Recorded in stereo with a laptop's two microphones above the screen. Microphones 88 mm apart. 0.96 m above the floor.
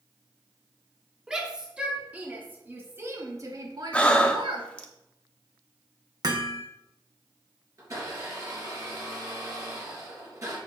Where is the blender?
40° right (ahead or behind), 3.5 m.